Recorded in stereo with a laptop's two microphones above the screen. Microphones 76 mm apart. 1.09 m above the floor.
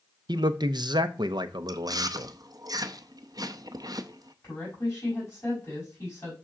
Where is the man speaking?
70° right (ahead or behind), 0.6 m.